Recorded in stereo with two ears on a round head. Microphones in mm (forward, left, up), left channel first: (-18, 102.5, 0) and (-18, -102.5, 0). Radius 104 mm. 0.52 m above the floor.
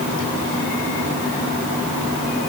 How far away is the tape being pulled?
No tape being pulled in this recording.